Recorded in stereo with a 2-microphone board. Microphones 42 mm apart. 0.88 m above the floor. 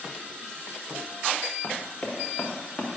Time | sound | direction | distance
1.6 | running footsteps | 25° left (ahead or behind) | 3.5 m